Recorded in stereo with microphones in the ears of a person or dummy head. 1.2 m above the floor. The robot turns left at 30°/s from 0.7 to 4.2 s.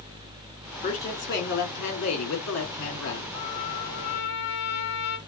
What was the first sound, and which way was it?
A woman speaking, 140° left.